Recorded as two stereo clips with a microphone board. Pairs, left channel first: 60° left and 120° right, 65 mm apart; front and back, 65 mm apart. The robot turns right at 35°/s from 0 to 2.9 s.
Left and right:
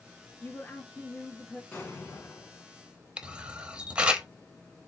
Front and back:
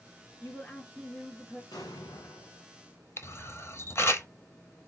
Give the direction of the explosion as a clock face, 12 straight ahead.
12 o'clock.